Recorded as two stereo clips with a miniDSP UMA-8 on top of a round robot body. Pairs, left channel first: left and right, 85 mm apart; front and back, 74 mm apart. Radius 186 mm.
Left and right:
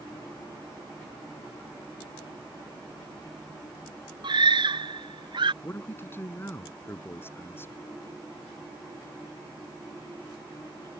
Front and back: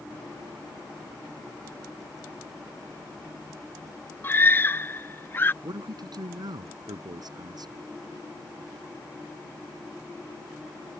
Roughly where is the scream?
Ahead right.